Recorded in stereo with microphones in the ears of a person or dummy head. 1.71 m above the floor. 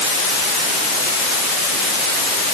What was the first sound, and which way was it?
Only background noise.